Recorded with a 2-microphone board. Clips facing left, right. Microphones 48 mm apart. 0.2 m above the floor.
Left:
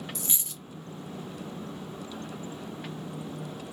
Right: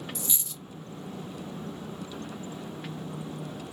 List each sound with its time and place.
0.1 s a dropped coin: 50° left (ahead or behind), 0.8 m